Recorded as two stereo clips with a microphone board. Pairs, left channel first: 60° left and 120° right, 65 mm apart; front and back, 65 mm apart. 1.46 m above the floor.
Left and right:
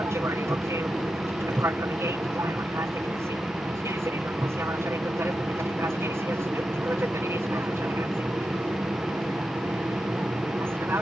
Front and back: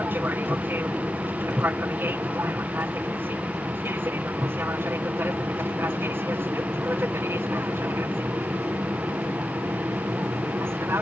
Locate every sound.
0.0 s an aircraft: 135° right; by 11.0 s 150° right